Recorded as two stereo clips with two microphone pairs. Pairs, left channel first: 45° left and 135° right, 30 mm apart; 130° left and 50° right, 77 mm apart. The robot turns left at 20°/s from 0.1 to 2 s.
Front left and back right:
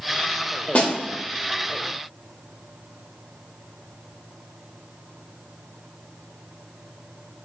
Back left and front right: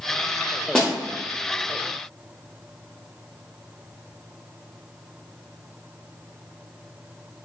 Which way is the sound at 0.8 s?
55° left.